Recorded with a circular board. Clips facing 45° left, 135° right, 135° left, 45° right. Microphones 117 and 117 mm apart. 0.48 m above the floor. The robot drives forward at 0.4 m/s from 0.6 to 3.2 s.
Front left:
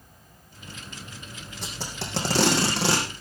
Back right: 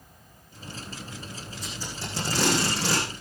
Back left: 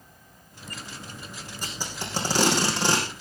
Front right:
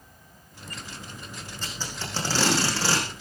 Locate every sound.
1.6 s tape being pulled: 55° left, 5.5 m; by 3.1 s 65° left, 5.5 m